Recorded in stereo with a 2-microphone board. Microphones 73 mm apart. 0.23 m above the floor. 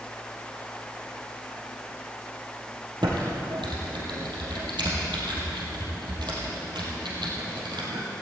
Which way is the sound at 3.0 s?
80° right.